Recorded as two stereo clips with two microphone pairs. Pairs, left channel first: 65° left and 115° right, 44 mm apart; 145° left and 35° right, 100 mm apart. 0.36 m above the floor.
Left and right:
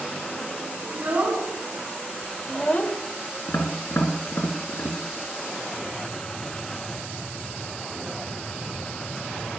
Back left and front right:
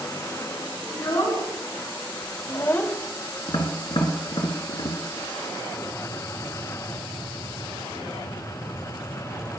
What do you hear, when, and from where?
0.9 s a child speaking: 175° right, 2.5 m; by 3.0 s 60° left, 0.9 m
3.5 s tapping: 105° left, 2 m